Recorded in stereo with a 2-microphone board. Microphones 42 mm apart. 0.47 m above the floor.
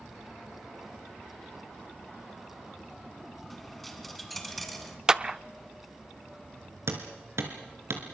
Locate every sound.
3.5 s a dropped coin: 5° left (ahead or behind), 2.5 m
5.1 s a clap: 15° right (ahead or behind), 0.5 m
6.9 s hammering: 80° right, 3.5 m